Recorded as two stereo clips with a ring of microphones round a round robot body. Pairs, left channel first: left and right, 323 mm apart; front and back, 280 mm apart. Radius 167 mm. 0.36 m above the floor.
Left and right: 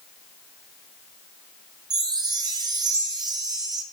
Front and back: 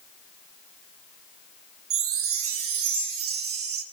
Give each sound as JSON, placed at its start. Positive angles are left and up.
{"t": 1.9, "sound": "a chime", "azimuth_deg": -165, "distance_m": 0.6}